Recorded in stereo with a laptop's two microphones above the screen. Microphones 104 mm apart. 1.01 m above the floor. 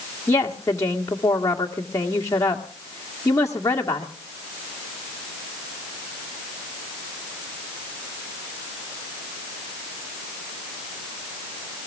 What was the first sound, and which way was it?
A woman speaking, 30° left (ahead or behind).